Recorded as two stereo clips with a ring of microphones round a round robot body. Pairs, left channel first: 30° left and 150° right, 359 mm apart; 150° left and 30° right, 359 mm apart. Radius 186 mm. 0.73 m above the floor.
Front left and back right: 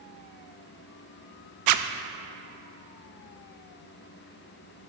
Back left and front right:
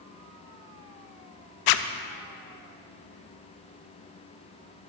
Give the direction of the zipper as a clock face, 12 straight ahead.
6 o'clock.